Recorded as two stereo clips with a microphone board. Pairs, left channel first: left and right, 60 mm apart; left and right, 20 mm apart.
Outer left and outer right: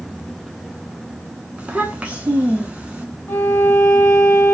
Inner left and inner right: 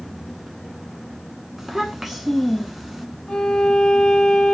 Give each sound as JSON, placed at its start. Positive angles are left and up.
{"t": 1.6, "sound": "a child speaking", "side_deg": -20, "distance_m": 0.6}
{"t": 3.3, "sound": "a violin", "side_deg": 35, "distance_m": 0.7}